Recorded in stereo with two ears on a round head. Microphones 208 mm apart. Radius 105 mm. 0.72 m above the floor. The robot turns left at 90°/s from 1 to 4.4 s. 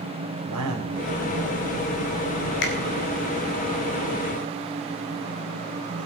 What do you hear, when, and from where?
0.5 s a man speaking: 75° right (ahead or behind), 3 m; by 2.5 s 55° left (ahead or behind), 3 m
2.6 s a finger snap: 45° left (ahead or behind), 2 m; by 2.7 s 35° left (ahead or behind), 2 m